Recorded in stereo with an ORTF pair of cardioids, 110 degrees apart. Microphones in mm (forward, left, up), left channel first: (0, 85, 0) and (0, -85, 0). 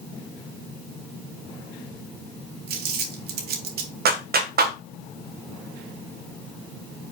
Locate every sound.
2.7 s crumpling: 70° right, 2 m
4.0 s a clap: 65° right, 1.1 m